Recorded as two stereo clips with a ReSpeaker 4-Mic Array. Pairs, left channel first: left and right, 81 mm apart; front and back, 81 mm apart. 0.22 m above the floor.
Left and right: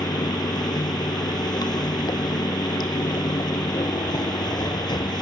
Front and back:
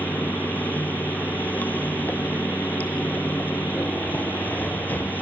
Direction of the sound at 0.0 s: 65° left.